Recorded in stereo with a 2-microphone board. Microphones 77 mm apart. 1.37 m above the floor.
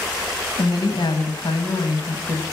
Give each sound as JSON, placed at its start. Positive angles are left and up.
{"t": 0.6, "sound": "a woman speaking", "side_deg": 85, "distance_m": 1.6}